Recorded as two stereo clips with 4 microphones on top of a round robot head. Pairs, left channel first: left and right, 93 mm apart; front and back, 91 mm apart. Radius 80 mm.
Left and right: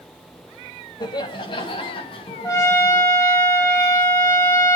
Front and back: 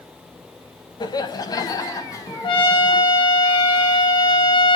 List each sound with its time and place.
1.0 s laughter: 40° left, 3 m; by 3.0 s 50° left, 5.5 m
2.4 s a trumpet: 25° left, 3.5 m